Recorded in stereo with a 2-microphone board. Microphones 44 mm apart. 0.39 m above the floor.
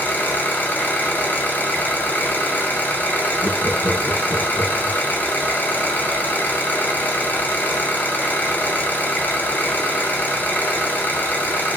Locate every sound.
0.0 s an engine running: 40° left (ahead or behind), 2.0 m
3.4 s laughter: 70° left (ahead or behind), 3 m